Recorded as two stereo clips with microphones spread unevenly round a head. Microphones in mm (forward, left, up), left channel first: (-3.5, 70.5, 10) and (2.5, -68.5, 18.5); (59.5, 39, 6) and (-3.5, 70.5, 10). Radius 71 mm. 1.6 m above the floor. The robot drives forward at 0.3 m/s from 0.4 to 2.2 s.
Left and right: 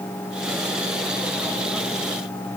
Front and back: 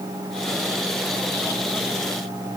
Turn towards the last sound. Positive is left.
No sound to turn to.